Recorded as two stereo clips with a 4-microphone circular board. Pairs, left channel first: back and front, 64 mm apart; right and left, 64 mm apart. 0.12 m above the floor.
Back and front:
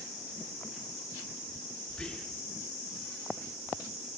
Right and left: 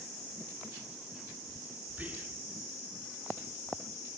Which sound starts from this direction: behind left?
Whispering, at 1.9 s.